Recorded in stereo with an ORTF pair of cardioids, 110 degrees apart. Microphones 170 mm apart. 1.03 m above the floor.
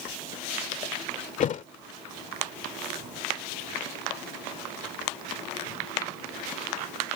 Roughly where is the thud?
Ahead left.